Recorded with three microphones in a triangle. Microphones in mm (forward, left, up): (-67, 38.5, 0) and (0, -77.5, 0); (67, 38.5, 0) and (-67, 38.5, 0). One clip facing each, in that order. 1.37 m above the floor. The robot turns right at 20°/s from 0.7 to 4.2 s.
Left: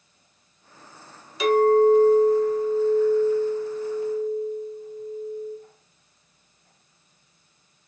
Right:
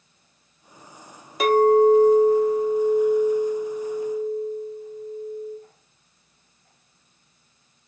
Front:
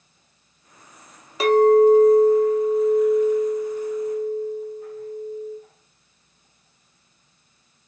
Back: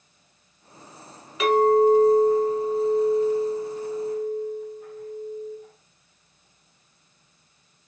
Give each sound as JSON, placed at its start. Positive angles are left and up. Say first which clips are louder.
{"t": 1.4, "sound": "a clink", "louder": "right 1 dB, front 4 dB", "azimuth_deg": -45, "distance_m": 0.6}